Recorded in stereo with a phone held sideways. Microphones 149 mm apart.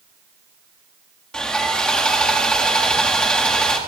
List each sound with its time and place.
1.3 s sawing: 5° left (ahead or behind), 1.6 m